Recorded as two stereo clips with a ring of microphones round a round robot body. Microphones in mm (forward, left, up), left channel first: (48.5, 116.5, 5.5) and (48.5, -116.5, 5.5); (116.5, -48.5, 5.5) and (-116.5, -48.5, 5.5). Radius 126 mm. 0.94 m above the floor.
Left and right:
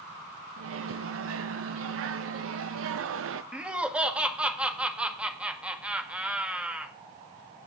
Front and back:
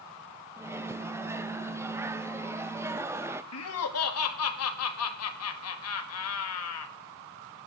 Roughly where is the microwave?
Right.